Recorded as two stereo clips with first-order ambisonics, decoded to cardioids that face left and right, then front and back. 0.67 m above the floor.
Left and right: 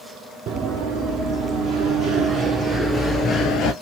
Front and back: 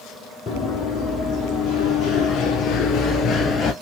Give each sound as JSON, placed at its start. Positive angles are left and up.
{"t": 0.5, "sound": "running footsteps", "azimuth_deg": -55, "distance_m": 1.9}